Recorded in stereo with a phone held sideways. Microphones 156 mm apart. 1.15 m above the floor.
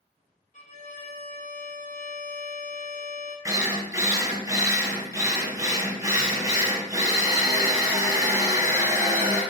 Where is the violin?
55° left (ahead or behind), 0.6 m.